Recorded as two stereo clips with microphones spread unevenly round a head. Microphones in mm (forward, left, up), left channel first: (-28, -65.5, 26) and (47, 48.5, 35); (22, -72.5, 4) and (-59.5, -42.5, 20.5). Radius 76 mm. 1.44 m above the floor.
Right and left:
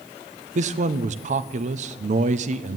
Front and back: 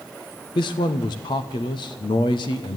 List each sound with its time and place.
0.6 s a man speaking: 20° left, 0.9 m